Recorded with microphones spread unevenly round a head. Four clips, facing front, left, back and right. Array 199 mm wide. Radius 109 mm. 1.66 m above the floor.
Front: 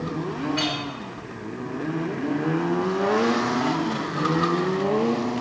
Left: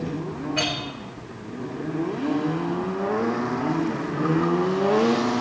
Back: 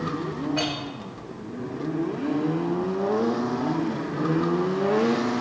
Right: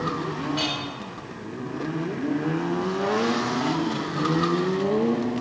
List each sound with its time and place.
0.6 s a clink: 160° left, 1.2 m